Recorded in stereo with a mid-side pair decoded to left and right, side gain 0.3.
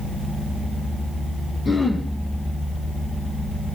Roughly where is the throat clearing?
Ahead left.